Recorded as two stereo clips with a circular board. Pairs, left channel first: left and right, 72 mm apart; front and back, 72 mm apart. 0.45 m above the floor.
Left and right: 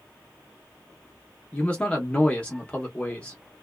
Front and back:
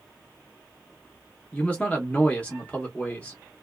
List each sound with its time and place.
1.5 s a man speaking: 45° left, 0.7 m